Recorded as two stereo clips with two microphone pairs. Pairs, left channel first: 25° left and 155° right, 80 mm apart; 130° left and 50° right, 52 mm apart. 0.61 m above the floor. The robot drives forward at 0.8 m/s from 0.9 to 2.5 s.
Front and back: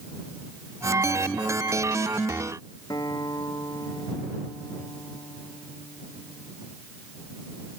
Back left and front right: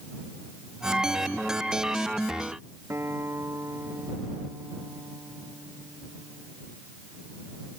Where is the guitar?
15° right.